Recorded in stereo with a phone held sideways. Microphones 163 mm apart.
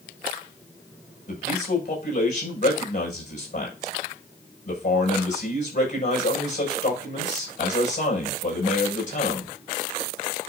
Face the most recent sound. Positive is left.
turn(degrees=50)  # may be behind; listen again after turning